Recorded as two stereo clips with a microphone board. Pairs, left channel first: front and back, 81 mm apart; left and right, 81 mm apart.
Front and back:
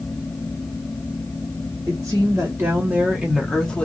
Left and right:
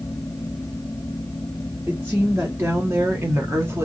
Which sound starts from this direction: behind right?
A woman speaking, at 1.9 s.